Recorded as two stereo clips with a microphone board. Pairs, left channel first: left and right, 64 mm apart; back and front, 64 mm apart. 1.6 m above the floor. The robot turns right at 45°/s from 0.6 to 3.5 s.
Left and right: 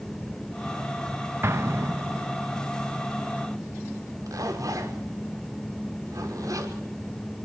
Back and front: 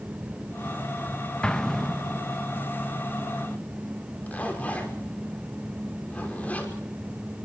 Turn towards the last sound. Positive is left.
turn(degrees=-115)